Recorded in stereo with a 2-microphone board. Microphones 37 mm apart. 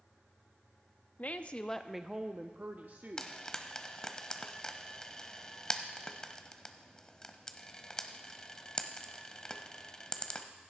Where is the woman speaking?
45° left (ahead or behind), 0.7 m; by 3.4 s 60° right (ahead or behind), 1.1 m.